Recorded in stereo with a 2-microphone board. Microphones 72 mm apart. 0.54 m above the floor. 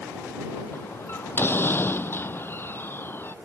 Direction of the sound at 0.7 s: 30° left (ahead or behind).